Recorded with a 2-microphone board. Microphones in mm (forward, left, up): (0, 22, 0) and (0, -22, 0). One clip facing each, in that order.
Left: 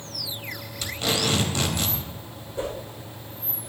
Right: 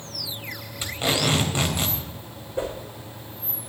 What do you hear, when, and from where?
0.8 s tape being pulled: 20° right (ahead or behind), 3 m
2.6 s a whoosh: 30° right (ahead or behind), 6 m